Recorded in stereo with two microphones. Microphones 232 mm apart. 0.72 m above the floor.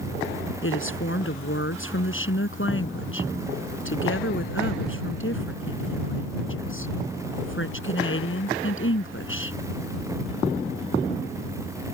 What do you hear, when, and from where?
0.6 s a woman speaking: 60° left (ahead or behind)